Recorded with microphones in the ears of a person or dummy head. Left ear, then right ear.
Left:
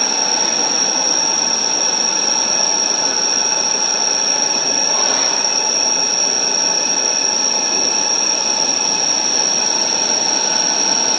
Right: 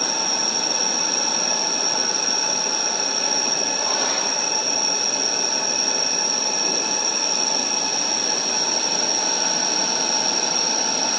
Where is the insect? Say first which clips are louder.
Left 5 dB; 10° left (ahead or behind), 4 m.